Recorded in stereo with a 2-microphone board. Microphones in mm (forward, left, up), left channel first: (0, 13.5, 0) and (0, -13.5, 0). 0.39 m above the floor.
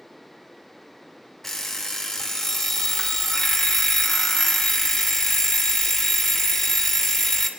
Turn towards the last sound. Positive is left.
turn(degrees=15)  # may be behind; listen again after turning